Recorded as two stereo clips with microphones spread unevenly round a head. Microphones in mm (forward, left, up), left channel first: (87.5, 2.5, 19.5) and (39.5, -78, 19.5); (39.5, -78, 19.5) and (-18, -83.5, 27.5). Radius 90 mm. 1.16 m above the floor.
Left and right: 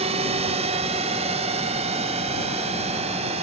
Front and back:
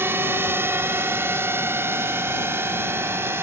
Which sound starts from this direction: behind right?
A drone, at 0.0 s.